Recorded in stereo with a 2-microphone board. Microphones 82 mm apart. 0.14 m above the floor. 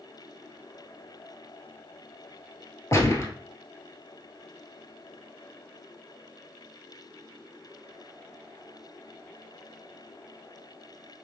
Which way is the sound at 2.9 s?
40° left (ahead or behind).